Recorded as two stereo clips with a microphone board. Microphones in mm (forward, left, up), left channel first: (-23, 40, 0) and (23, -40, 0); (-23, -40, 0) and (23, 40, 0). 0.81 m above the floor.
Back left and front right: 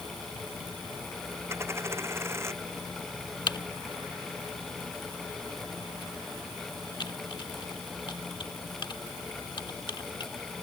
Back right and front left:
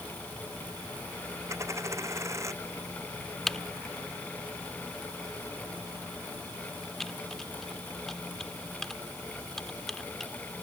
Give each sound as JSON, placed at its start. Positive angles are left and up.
{"t": 1.5, "sound": "a dropped coin", "azimuth_deg": 0}
{"t": 3.5, "sound": "typing on a keyboard", "azimuth_deg": 155}